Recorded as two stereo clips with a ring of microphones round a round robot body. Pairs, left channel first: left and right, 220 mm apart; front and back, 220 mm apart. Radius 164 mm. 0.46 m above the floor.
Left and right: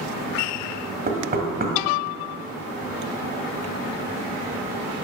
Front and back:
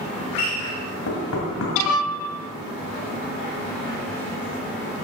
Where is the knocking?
40° right, 1.9 m.